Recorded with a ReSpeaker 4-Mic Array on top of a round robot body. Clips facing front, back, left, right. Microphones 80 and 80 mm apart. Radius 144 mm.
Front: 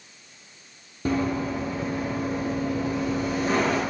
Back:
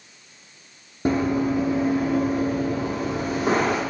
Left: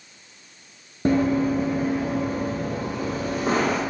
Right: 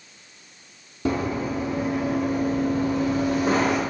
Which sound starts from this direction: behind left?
Running footsteps, at 1.1 s.